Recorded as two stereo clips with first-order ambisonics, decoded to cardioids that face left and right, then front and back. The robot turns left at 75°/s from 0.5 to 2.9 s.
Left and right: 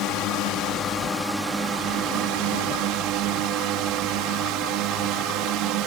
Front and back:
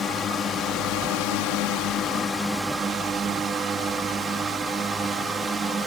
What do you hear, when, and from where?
0.0 s a drone: 60° left; by 5.9 s 110° right